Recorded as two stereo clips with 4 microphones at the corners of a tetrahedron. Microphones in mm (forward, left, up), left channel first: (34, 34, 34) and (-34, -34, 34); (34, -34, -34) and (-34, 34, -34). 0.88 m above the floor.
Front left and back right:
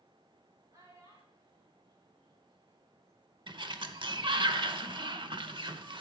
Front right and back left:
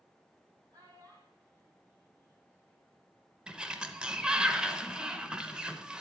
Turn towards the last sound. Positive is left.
turn(degrees=-145)